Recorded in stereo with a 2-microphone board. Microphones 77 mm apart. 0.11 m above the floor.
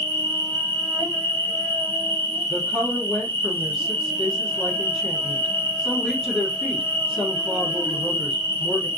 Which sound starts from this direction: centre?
A woman speaking, at 2.5 s.